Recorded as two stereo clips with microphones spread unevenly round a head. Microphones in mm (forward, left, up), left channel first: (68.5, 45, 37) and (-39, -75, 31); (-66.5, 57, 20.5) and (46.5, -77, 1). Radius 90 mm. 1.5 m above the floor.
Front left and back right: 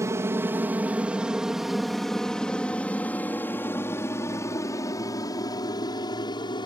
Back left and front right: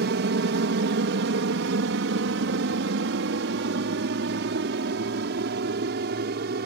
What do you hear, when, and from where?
0.0 s an aircraft: 60° right; by 6.7 s 15° right